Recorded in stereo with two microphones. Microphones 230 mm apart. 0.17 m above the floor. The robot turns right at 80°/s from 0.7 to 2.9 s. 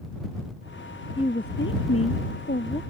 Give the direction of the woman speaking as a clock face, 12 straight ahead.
11 o'clock.